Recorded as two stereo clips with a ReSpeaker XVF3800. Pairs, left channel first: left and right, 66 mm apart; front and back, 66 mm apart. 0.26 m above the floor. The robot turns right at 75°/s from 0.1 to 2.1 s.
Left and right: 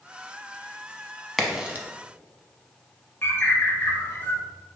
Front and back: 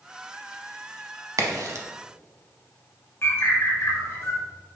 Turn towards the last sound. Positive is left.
turn(degrees=40)